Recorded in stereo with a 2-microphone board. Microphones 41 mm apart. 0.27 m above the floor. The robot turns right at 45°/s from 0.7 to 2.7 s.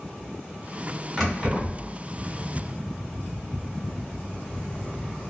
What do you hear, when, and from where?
1.2 s keys jangling: 5° left (ahead or behind), 1.2 m; by 1.9 s 20° right (ahead or behind), 1.2 m